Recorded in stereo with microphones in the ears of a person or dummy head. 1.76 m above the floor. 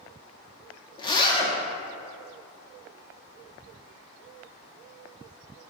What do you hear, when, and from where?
1.0 s a zipper: 20° left (ahead or behind), 0.9 m